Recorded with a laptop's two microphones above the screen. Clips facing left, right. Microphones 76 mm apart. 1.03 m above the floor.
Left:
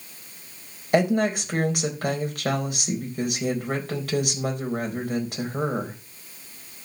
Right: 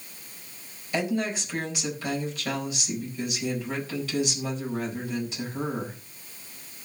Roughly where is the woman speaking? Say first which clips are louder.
Left 7 dB; left.